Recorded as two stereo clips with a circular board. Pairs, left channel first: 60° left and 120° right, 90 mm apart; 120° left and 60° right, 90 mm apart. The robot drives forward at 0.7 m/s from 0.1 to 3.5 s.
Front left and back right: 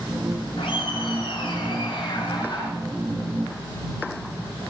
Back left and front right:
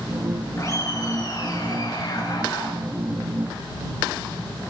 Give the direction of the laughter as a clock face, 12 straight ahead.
10 o'clock.